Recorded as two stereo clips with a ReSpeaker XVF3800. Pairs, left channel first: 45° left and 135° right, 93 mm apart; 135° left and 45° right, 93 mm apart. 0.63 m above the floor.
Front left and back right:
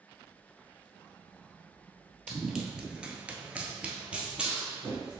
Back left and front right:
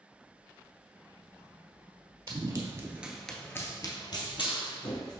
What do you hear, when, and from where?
2.3 s running footsteps: 50° right, 0.9 m; by 5.2 s 145° left, 1.5 m